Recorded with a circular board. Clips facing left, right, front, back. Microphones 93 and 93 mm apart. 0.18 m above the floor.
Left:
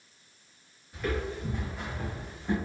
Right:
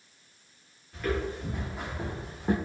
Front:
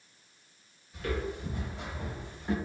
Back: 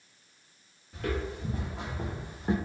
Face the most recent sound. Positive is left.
turn(degrees=-120)